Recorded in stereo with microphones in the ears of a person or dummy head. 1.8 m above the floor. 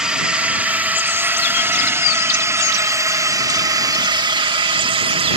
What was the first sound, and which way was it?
A drone, 5° right (ahead or behind).